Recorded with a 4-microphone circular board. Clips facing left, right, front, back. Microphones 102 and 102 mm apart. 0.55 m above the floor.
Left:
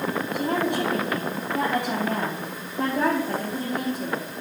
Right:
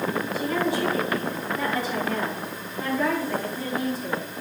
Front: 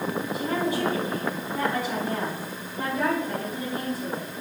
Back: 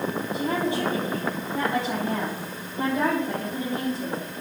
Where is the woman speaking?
115° left, 4 m.